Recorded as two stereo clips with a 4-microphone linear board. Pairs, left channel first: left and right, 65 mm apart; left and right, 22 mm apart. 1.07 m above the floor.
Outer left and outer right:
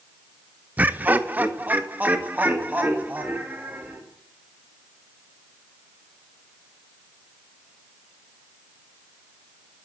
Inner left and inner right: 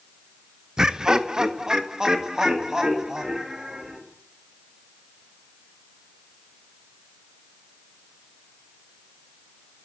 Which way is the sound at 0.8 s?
25° right (ahead or behind).